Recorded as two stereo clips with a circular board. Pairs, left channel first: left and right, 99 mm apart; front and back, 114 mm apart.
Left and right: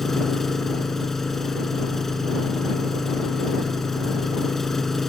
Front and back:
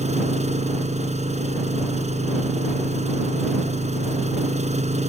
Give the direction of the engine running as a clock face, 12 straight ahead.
6 o'clock.